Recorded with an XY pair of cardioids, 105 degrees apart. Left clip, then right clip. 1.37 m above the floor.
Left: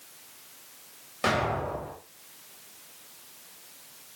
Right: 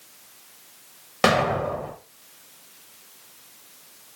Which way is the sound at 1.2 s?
70° right.